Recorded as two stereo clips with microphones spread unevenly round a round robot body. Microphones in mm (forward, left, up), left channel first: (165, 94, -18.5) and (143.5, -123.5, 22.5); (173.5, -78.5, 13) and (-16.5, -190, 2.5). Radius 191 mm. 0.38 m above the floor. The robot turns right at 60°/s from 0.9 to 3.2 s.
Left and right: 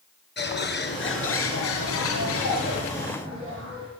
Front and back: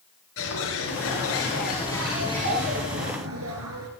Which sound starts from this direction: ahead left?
A bird, at 0.4 s.